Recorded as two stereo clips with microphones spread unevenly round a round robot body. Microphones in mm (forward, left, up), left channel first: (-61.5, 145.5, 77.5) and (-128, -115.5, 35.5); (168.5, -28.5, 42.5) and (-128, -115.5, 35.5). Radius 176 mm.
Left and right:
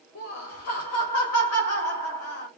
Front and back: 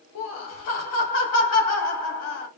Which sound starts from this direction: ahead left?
Laughter, at 0.1 s.